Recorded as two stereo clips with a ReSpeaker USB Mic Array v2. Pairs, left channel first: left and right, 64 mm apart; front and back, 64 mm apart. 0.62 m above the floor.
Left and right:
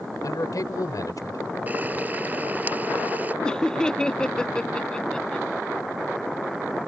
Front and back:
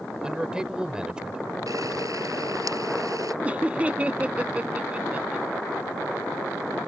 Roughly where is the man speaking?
Left.